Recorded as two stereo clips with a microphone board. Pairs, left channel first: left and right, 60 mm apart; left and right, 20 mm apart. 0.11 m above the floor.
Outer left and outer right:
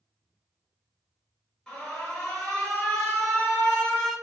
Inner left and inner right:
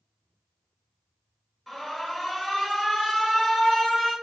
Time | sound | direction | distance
1.7 | an alarm | 10° left (ahead or behind) | 1.5 m